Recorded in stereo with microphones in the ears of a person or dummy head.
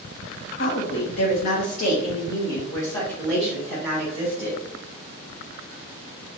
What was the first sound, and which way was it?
A woman speaking, 70° left (ahead or behind).